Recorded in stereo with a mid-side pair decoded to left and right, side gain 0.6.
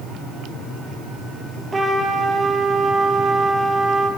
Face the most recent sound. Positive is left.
turn(degrees=-20)